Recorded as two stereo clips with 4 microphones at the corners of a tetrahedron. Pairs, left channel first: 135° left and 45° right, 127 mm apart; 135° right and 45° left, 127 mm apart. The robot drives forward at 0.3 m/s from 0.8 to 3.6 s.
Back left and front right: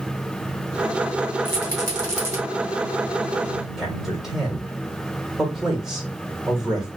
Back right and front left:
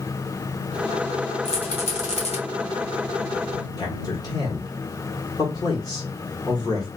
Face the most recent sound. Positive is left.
turn(degrees=-125)